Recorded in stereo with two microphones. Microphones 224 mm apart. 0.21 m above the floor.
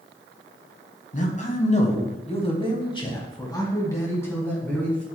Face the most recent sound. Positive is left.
turn(degrees=5)  # may be behind; listen again after turning